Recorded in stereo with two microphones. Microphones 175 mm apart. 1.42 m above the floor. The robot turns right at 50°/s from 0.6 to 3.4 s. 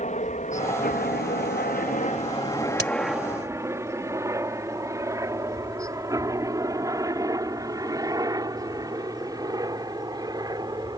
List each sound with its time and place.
0.0 s a helicopter: 45° left (ahead or behind); by 11.0 s 20° right (ahead or behind)
2.8 s a crack: 70° right (ahead or behind); by 2.9 s 65° right (ahead or behind)